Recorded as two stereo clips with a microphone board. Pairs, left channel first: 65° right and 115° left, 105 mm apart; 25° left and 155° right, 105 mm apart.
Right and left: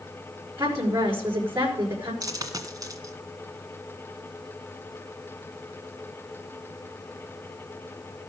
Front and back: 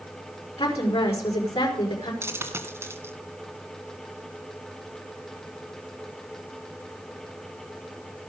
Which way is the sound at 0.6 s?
55° left.